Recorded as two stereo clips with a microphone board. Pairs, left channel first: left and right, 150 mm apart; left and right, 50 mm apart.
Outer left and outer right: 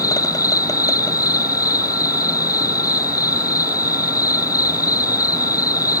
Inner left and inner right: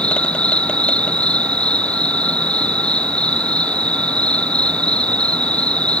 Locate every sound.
0.0 s an insect: 20° left (ahead or behind)